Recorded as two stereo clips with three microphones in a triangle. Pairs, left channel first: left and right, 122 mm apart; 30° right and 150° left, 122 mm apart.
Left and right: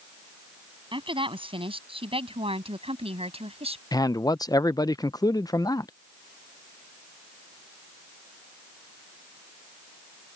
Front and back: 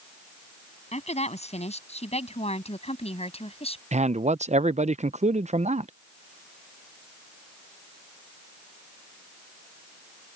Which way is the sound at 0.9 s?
50° right.